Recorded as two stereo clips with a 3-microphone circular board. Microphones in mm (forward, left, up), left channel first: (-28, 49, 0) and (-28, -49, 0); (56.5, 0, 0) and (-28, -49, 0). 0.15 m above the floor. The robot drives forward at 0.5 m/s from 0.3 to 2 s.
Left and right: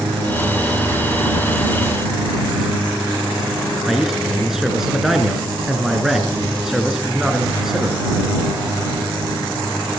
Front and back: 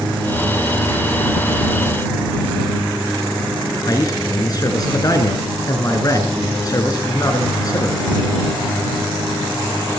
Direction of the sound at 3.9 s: 5° right.